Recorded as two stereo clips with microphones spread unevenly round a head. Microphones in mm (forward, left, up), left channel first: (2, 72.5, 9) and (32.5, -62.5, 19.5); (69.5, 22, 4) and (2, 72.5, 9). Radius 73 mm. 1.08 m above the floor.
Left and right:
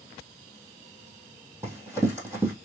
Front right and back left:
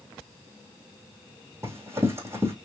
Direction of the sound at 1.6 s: 150° right.